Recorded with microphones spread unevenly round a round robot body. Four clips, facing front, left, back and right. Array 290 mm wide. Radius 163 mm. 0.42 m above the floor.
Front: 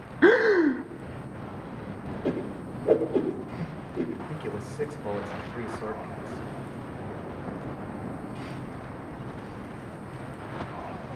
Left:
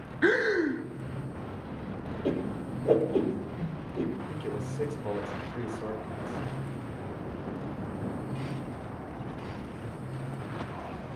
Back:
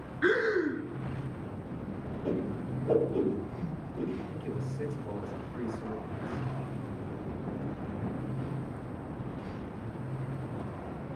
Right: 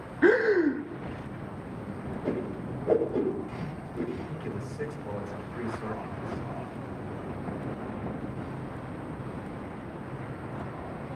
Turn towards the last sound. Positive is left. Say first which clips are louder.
# left 2 dB, front 3 dB
turn(degrees=20)